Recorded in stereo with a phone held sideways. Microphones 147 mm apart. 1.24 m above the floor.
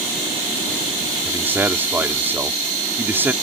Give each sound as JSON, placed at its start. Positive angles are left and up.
{"t": 1.2, "sound": "a man speaking", "side_deg": -15}